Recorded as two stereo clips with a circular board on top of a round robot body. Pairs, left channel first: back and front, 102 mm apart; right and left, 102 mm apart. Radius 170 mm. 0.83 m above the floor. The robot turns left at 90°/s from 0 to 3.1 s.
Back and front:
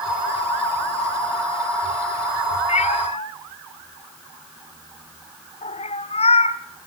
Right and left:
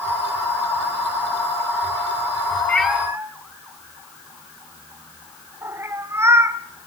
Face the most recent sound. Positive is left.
turn(degrees=160)